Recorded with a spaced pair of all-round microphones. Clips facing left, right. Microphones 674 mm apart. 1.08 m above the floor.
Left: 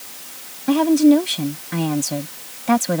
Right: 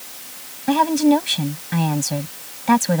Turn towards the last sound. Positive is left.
turn(degrees=-30)  # may be behind; listen again after turning